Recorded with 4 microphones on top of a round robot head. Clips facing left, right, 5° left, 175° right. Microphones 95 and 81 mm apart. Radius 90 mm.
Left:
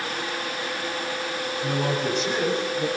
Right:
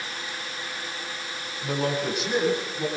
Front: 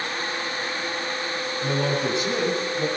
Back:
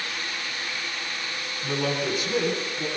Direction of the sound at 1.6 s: 5° right.